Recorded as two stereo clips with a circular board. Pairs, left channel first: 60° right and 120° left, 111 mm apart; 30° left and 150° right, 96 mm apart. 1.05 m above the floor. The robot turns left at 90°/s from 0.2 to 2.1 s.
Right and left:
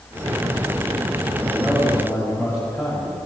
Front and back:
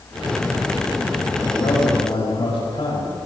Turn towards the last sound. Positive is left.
turn(degrees=0)